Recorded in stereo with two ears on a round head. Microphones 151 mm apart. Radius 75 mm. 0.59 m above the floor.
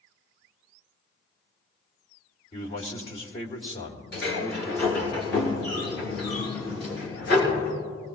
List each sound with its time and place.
2.5 s a man speaking: 35° left (ahead or behind), 2 m
4.1 s a sliding door: 70° left (ahead or behind), 4 m